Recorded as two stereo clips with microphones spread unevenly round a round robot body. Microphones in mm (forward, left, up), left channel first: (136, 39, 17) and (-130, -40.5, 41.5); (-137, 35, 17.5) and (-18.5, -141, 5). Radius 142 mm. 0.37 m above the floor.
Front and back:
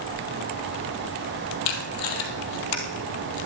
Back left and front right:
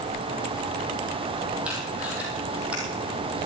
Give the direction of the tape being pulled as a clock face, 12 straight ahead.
11 o'clock.